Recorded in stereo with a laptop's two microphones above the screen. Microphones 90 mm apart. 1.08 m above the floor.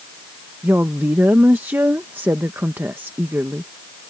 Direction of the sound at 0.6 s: 25° right (ahead or behind).